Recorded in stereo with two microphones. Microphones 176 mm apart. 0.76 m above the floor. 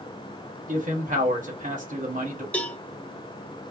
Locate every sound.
0.7 s a man speaking: 50° right (ahead or behind), 1.7 m
2.5 s a cowbell: 5° left (ahead or behind), 0.7 m